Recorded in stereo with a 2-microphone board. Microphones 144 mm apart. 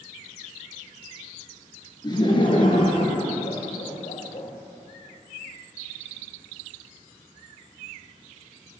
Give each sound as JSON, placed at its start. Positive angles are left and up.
{"t": 2.0, "sound": "laughter", "side_deg": 30, "distance_m": 2.0}